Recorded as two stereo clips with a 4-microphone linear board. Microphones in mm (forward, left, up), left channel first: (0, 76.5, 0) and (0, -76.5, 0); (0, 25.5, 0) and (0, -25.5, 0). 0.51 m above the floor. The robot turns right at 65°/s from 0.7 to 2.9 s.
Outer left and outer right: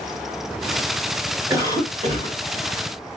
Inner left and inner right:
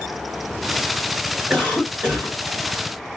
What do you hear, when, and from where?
1.5 s a cough: 160° right, 1.9 m; by 2.4 s 100° right, 1.9 m